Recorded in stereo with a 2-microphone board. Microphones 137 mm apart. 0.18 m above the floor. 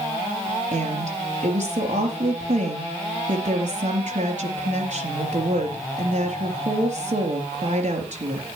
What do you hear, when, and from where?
0.7 s a woman speaking: 65° right (ahead or behind), 4 m